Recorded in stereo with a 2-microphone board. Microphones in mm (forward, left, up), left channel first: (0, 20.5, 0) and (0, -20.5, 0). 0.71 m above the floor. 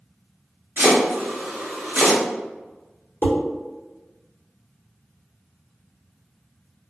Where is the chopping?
55° right (ahead or behind), 1.0 m.